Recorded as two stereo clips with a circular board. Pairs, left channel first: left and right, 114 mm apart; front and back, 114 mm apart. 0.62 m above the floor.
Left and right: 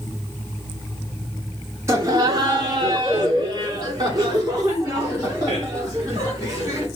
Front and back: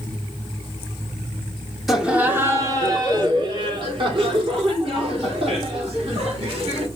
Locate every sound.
1.9 s laughter: 95° right, 1.0 m; by 6.9 s 145° right, 4.5 m